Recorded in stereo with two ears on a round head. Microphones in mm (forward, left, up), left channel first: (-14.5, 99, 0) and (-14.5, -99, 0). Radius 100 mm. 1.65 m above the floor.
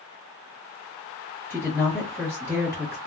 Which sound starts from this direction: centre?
A woman speaking, at 1.5 s.